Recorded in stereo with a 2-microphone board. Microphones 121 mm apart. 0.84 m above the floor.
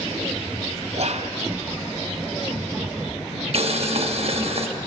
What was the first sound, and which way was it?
Whispering, 60° right (ahead or behind).